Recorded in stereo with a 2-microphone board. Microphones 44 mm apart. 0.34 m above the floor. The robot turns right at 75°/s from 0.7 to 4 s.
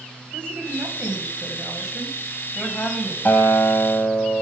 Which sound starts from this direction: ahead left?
A guitar, at 3.2 s.